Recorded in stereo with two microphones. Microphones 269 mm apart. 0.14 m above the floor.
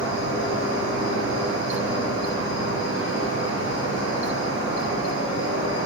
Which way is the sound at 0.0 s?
55° right (ahead or behind).